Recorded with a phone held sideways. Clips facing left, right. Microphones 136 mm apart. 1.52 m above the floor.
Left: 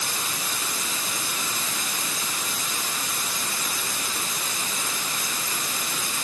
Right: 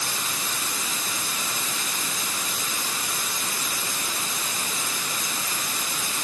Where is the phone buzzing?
No phone buzzing in this recording.